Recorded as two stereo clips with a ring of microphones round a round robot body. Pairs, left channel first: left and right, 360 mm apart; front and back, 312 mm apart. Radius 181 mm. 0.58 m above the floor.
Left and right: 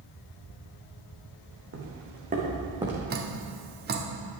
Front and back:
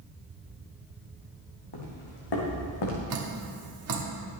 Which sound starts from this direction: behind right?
Dripping, at 3.1 s.